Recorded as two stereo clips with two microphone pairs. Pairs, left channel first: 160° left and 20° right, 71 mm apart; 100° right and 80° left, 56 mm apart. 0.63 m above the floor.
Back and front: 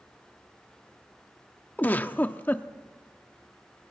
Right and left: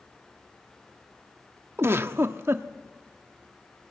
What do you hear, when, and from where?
1.8 s a giggle: 100° left, 0.8 m